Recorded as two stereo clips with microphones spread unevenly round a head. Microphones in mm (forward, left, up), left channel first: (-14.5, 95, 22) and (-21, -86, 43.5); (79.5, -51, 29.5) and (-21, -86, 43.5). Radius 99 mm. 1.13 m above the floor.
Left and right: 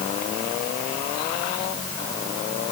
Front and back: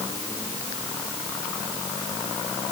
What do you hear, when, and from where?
Only background noise.